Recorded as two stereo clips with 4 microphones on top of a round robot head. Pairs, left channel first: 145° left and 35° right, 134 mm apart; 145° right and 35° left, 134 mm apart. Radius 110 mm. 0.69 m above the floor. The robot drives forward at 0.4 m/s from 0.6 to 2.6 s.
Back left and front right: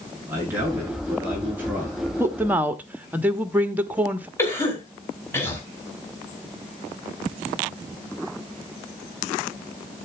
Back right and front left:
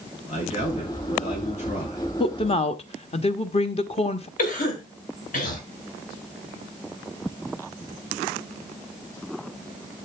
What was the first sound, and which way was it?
A man speaking, 110° right.